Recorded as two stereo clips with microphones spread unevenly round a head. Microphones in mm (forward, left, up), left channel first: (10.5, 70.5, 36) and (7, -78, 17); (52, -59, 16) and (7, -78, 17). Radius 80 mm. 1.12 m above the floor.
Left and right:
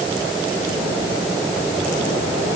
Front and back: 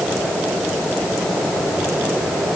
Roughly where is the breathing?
I don't hear breathing.